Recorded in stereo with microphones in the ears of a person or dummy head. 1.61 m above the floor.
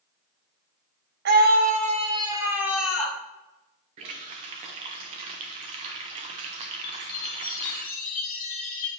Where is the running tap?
25° right (ahead or behind), 0.6 m.